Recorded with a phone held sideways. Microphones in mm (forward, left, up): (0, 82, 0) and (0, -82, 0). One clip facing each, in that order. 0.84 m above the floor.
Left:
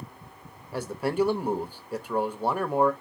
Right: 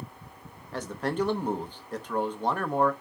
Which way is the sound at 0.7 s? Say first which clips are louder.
Left 3 dB; 10° left (ahead or behind).